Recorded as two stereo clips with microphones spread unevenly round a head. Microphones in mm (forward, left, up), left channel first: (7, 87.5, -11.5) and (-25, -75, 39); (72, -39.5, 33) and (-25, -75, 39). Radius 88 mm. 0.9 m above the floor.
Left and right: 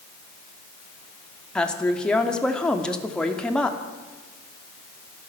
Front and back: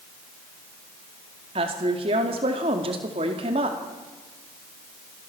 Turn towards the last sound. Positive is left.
turn(degrees=160)